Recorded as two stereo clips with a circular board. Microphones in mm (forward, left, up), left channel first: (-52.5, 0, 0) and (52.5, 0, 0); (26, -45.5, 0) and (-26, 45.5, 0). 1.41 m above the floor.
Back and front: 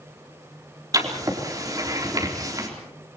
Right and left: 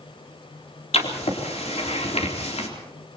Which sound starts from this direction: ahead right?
Writing, at 0.9 s.